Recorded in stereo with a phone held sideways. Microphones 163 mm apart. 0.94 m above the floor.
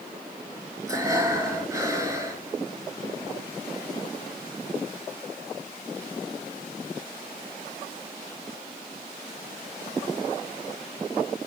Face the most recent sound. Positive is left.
turn(degrees=-20)  # may be behind; listen again after turning